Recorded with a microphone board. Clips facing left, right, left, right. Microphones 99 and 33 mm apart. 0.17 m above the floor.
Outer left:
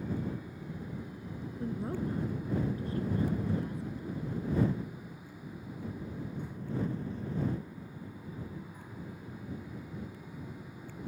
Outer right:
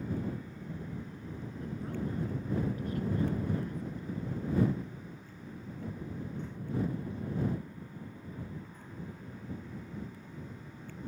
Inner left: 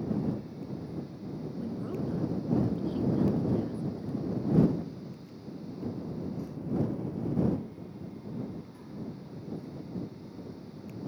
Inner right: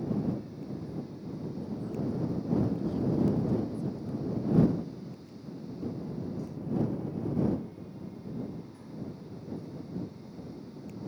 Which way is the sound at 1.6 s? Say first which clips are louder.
Outer left 3 dB, inner left 1 dB; 35° left (ahead or behind).